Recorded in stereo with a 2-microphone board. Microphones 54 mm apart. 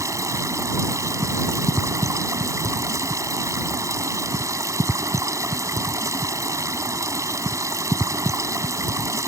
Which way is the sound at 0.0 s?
75° right (ahead or behind).